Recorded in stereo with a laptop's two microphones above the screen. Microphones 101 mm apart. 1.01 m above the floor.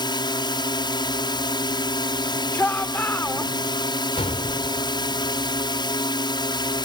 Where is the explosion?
85° left.